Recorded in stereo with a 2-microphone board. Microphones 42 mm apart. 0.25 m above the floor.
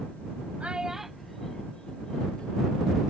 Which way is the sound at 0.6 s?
30° right (ahead or behind).